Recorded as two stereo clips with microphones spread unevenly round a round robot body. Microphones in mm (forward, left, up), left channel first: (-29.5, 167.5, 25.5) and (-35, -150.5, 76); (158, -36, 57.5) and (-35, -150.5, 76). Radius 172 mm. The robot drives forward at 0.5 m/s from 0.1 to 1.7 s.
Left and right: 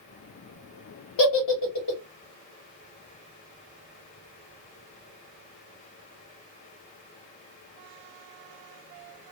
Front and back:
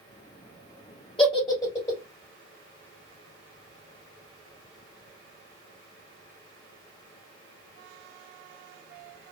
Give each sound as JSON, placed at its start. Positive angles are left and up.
{"t": 1.2, "sound": "a giggle", "azimuth_deg": 95, "distance_m": 1.4}